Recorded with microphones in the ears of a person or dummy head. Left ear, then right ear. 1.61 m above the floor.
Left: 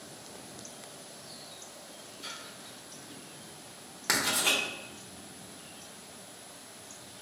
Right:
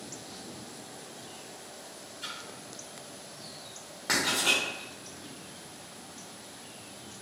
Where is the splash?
35° right (ahead or behind), 1.9 m.